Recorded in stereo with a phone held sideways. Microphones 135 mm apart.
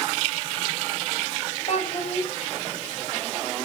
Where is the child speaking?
55° left (ahead or behind), 5.5 m.